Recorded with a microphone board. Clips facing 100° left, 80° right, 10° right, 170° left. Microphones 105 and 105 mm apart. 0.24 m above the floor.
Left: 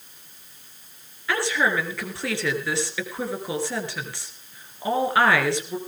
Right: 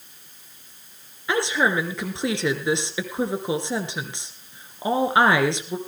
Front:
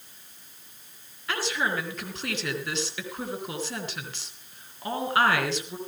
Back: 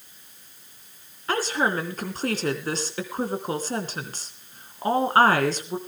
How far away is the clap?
I don't hear a clap.